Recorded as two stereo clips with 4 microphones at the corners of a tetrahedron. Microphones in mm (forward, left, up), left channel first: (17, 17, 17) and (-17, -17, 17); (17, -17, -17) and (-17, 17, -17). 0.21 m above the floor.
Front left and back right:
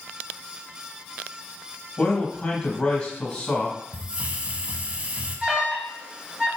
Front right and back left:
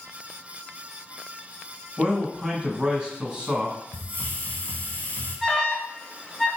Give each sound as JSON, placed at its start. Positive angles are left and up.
{"t": 2.0, "sound": "a man speaking", "azimuth_deg": 95, "distance_m": 1.0}
{"t": 3.9, "sound": "a hiss", "azimuth_deg": -80, "distance_m": 0.5}
{"t": 5.4, "sound": "an alarm", "azimuth_deg": -85, "distance_m": 0.8}